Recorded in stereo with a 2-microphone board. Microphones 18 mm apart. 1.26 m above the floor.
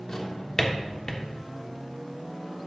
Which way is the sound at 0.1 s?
35° left (ahead or behind).